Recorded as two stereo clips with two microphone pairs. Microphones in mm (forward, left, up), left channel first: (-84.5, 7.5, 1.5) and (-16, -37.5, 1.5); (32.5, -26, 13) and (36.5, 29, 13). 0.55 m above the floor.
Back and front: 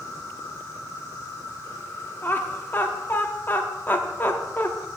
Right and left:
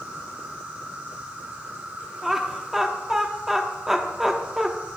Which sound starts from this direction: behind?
Laughter, at 2.2 s.